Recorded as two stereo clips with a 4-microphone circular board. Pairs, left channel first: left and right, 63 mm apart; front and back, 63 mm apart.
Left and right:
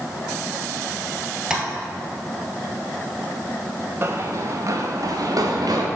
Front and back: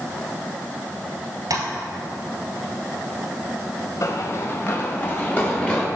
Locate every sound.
1.5 s tapping: 170° right, 1.4 m
4.0 s running footsteps: 35° right, 1.0 m; by 5.9 s 70° right, 1.8 m